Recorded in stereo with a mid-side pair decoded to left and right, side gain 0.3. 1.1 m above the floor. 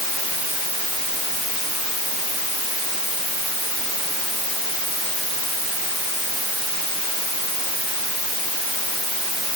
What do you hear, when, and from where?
Only background noise.